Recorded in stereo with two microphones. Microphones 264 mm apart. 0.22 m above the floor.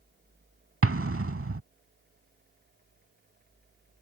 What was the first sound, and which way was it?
An explosion, 55° right (ahead or behind).